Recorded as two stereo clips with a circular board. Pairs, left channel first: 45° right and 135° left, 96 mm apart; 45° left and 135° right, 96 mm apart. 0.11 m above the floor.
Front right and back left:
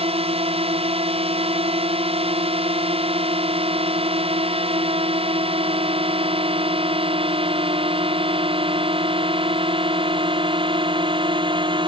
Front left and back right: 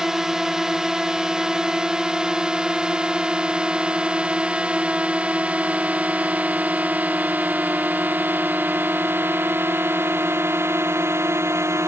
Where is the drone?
140° left; by 11.9 s 165° left.